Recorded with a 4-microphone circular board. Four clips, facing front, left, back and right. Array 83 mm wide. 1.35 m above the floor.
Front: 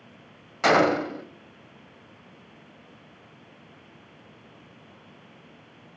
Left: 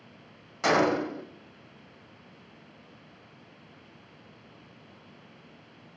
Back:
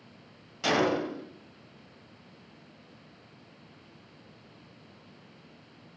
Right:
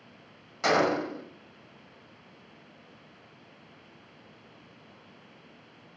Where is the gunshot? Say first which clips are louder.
Left 1 dB, front 6 dB; 5° left, 0.8 m.